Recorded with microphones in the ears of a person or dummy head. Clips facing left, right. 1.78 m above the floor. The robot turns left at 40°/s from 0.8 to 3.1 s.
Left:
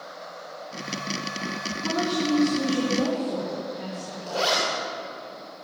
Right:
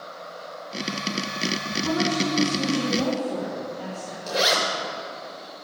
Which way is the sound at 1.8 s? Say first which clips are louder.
Even; 75° left.